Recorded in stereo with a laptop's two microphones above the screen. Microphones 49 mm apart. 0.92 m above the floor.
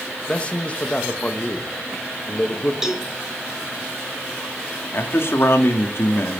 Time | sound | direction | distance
0.3 | a man speaking | 25° left (ahead or behind) | 1.2 m
2.8 | a cowbell | 10° right (ahead or behind) | 1.5 m
4.9 | a man speaking | 55° left (ahead or behind) | 2.0 m